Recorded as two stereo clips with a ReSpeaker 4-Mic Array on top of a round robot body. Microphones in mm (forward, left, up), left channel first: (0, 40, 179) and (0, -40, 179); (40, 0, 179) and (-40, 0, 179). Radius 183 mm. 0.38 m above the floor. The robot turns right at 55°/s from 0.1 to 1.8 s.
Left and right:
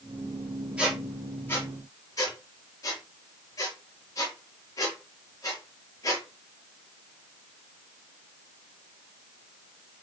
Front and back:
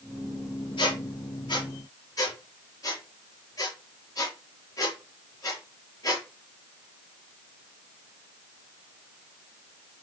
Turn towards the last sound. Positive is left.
turn(degrees=40)